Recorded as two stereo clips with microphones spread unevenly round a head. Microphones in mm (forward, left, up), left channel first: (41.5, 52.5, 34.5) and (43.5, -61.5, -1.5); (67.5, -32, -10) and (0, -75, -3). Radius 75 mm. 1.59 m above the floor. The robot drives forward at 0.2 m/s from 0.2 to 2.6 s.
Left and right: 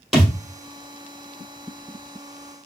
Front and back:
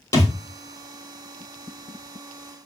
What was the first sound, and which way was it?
A thud, 30° left.